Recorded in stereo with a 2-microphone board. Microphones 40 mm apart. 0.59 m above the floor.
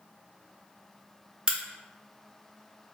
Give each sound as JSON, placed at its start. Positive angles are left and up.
{"t": 1.5, "sound": "a crack", "side_deg": -25, "distance_m": 0.6}